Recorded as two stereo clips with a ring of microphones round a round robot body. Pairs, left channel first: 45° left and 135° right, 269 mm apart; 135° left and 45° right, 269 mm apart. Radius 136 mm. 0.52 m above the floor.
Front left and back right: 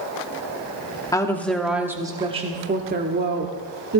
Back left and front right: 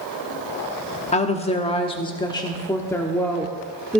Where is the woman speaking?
105° left, 1.2 m; by 4.0 s 135° right, 1.6 m.